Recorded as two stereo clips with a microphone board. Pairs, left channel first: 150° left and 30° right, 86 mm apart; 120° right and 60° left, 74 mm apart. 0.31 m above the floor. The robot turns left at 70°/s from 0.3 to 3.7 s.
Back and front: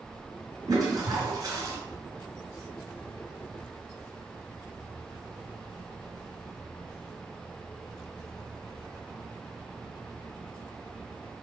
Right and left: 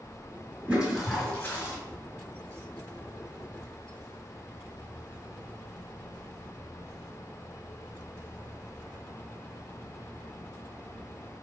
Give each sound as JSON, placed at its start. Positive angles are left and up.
{"t": 0.7, "sound": "a toilet flushing", "azimuth_deg": -5, "distance_m": 2.0}